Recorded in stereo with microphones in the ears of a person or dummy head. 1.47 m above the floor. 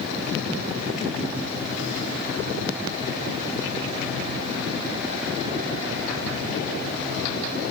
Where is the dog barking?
No dog barking in this recording.